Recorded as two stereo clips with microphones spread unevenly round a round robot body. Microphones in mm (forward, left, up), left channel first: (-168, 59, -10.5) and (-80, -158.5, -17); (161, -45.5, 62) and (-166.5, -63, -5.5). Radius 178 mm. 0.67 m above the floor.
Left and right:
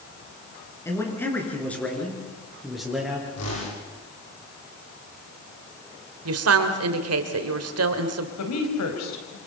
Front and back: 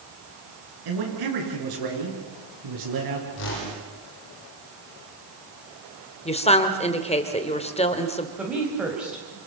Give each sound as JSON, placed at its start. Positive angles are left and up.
{"t": 0.8, "sound": "a man speaking", "azimuth_deg": -170, "distance_m": 7.5}
{"t": 3.4, "sound": "a whoosh", "azimuth_deg": 60, "distance_m": 8.5}
{"t": 6.2, "sound": "a woman speaking", "azimuth_deg": -70, "distance_m": 2.5}
{"t": 8.4, "sound": "a woman speaking", "azimuth_deg": 100, "distance_m": 4.5}